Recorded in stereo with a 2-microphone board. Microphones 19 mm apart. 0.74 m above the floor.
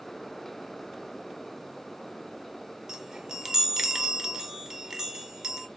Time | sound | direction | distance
2.9 | a chime | 25° right (ahead or behind) | 0.6 m